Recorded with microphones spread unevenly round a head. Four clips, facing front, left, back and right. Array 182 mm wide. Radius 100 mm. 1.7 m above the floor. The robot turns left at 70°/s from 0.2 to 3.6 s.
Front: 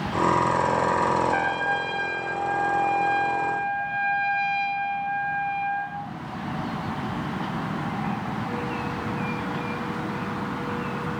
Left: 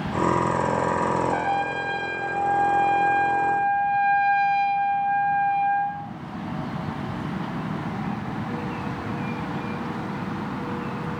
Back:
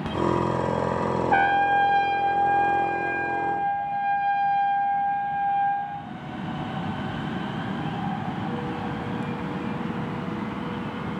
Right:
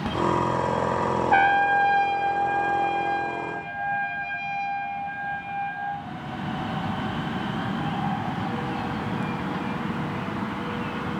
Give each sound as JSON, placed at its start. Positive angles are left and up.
{"t": 1.3, "sound": "a trumpet", "azimuth_deg": -100, "distance_m": 1.6}